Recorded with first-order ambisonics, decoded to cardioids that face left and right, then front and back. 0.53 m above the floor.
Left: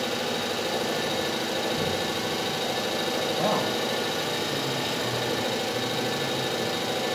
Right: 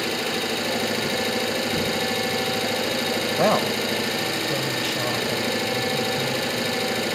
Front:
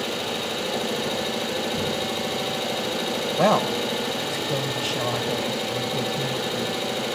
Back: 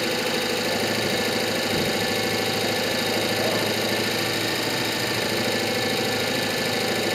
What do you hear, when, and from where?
0.0 s an engine running: 135° right, 8.5 m
3.4 s a woman speaking: 40° right, 2.5 m